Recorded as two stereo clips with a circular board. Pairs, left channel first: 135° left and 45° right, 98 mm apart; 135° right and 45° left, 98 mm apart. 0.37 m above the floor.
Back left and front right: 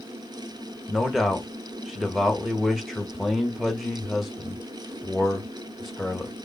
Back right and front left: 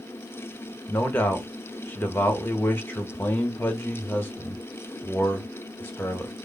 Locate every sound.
0.9 s a man speaking: 130° right, 1.0 m